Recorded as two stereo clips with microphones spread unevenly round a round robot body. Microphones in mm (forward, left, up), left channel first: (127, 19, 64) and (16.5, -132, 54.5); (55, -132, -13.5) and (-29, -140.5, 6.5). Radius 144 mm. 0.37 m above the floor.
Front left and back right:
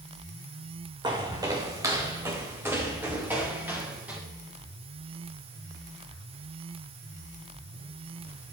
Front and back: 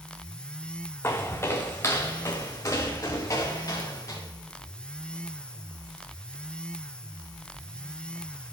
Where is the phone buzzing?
I don't hear a phone buzzing.